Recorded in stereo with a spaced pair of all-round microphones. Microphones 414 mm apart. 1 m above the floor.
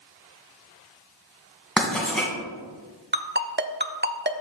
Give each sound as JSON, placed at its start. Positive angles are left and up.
{"t": 1.8, "sound": "writing", "side_deg": 0, "distance_m": 2.0}
{"t": 3.1, "sound": "a ringtone", "side_deg": -25, "distance_m": 0.5}